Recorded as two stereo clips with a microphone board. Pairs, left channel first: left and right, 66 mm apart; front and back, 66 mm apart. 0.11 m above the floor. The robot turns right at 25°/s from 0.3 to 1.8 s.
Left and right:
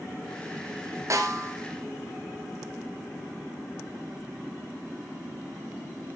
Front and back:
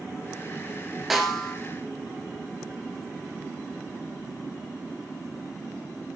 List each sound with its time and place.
1.1 s a snare drum: 95° right, 1.3 m; by 1.6 s 80° right, 1.3 m